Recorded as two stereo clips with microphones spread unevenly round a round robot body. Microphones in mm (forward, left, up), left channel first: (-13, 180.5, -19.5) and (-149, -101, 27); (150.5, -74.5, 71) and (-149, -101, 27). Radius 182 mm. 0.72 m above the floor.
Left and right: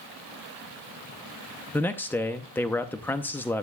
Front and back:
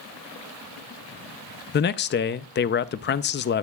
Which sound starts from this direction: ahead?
A man speaking, at 1.7 s.